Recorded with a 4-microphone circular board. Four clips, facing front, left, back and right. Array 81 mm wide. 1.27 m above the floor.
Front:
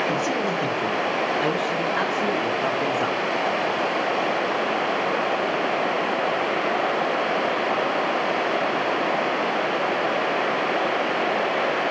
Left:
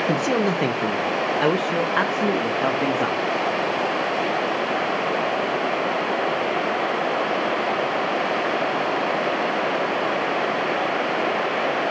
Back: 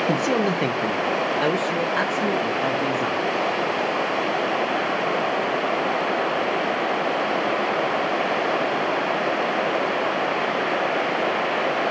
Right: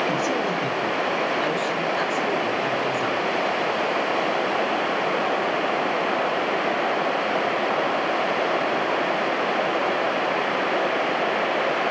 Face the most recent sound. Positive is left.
turn(degrees=90)